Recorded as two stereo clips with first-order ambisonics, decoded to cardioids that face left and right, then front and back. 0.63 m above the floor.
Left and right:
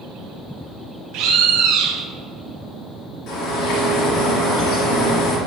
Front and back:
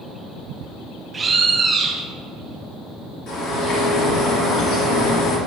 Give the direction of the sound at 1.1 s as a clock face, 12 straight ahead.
4 o'clock.